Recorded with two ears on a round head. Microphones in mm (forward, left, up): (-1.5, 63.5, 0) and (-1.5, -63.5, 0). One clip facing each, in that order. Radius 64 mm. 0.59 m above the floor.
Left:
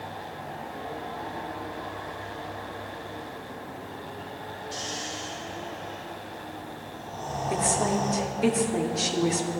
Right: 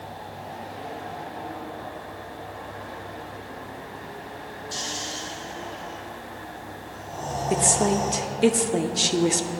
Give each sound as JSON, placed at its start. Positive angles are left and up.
{"t": 4.7, "sound": "snoring", "side_deg": -60, "distance_m": 4.5}
{"t": 7.5, "sound": "a woman speaking", "side_deg": -35, "distance_m": 0.9}